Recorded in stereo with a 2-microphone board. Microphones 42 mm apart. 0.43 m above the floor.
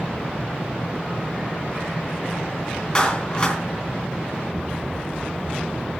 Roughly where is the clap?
Left.